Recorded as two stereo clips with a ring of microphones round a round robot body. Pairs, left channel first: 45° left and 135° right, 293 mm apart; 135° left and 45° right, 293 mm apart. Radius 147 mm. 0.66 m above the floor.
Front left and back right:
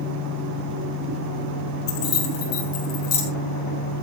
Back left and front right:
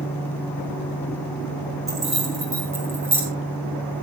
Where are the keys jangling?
35° left, 6.5 m; by 3.2 s 40° left, 4.5 m.